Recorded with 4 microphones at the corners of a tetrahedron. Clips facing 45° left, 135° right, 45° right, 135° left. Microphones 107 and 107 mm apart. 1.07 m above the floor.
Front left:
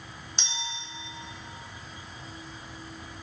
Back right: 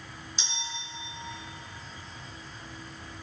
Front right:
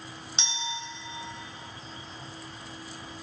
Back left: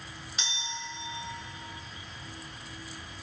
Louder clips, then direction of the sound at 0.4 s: Front left 3 dB, front right 3 dB; 15° left.